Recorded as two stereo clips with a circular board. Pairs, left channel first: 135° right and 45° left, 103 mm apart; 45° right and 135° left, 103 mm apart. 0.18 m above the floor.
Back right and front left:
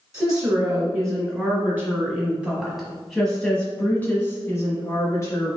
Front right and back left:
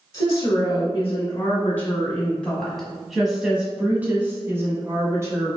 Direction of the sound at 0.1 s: Straight ahead.